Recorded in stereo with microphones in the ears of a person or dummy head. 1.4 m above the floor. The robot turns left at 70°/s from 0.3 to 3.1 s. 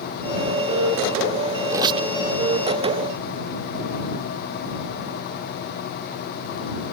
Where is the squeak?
15° right (ahead or behind); by 2.1 s 40° right (ahead or behind).